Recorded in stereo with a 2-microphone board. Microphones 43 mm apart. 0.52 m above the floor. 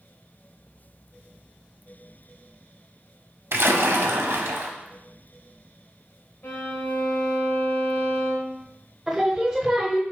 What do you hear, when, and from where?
3.5 s a splash: 65° right (ahead or behind), 0.6 m
6.4 s a violin: 50° left (ahead or behind), 1.7 m
9.1 s singing: 15° right (ahead or behind), 0.7 m